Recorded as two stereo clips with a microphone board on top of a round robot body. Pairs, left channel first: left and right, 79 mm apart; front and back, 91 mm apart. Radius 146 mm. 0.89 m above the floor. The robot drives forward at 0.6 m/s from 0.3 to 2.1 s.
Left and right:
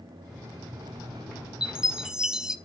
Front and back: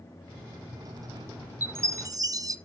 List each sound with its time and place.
1.6 s a chime: 150° right, 0.8 m; by 2.5 s 165° right, 0.9 m